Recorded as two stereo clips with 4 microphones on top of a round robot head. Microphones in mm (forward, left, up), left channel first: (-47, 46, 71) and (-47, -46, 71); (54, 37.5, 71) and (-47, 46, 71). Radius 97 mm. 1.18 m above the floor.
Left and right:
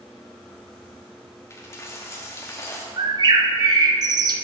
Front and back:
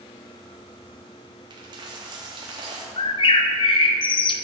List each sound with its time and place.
1.5 s a dropped coin: 145° left, 0.8 m
3.0 s a bird: 45° right, 0.6 m